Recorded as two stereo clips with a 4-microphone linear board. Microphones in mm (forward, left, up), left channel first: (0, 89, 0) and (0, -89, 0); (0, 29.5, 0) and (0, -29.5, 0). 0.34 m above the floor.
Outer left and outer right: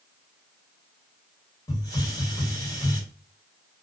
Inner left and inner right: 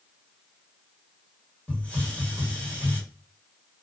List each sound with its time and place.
1.7 s a hiss: 20° left (ahead or behind), 1.6 m